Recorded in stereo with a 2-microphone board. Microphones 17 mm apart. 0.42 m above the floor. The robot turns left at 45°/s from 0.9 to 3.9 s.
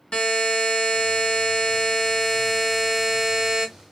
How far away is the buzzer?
About 1.2 m.